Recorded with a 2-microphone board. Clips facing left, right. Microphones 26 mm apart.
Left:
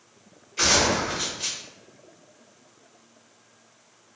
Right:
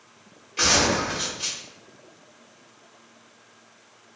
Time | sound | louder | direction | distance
0.6 | a gunshot | even | 35° right (ahead or behind) | 1.7 m